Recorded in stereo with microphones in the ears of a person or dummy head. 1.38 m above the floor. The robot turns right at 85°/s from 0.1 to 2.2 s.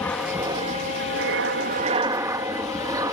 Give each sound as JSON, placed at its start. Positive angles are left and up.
{"t": 0.0, "sound": "an aircraft", "side_deg": 15}